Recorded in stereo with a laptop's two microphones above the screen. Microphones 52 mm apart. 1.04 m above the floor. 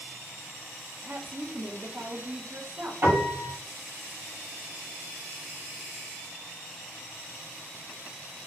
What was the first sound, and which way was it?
A woman speaking, 30° right (ahead or behind).